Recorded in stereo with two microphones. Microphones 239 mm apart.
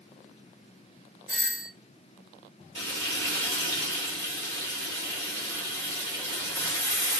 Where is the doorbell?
40° right (ahead or behind), 1.0 m.